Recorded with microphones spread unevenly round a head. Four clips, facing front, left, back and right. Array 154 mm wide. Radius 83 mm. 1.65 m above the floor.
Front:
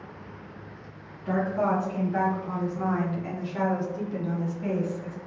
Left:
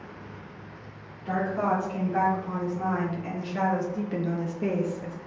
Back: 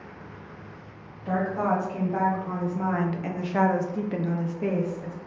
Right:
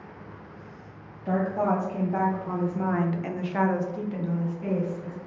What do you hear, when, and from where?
1.2 s a woman speaking: 105° right, 1.7 m; by 5.2 s 110° left, 0.9 m